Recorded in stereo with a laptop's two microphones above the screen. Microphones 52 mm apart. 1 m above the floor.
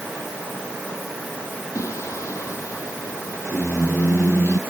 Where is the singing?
85° left.